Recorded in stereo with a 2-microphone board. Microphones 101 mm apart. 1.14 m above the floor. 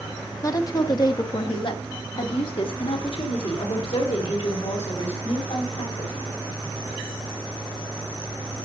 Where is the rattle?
I don't hear a rattle.